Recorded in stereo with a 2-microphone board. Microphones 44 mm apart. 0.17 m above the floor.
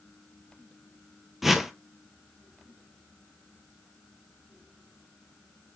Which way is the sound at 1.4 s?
5° right (ahead or behind).